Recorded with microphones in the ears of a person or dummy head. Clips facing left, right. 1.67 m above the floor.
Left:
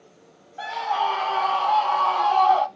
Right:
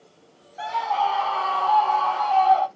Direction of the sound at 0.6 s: Centre (ahead or behind).